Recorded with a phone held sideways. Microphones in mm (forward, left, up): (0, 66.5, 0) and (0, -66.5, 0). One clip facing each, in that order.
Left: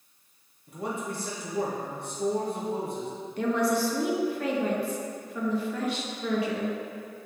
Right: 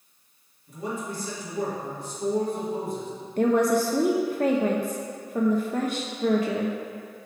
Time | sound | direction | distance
0.7 | a man speaking | 60° left (ahead or behind) | 1.6 m
3.4 | a woman speaking | 45° right (ahead or behind) | 0.5 m